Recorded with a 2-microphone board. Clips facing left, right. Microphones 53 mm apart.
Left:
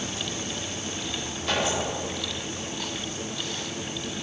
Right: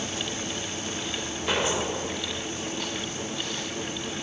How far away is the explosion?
About 1.4 m.